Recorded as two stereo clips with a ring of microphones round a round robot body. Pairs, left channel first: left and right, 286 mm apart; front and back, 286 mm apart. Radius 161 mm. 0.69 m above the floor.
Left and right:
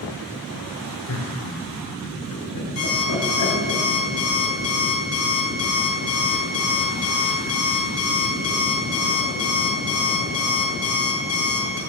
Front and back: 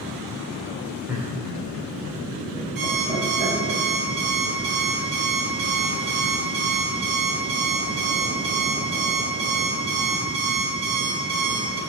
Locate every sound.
1.1 s laughter: 95° left, 3 m; by 3.8 s 110° left, 4 m
2.8 s an alarm clock: 125° left, 4.5 m